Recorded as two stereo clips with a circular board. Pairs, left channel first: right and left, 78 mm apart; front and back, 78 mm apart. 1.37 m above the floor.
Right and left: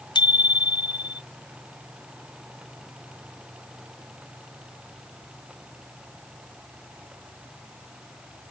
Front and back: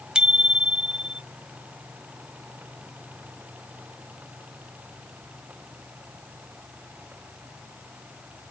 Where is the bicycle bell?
100° right.